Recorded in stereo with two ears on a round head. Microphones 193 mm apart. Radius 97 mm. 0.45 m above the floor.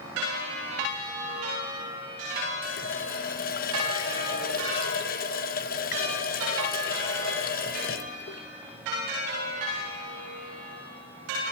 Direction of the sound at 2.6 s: 40° left (ahead or behind).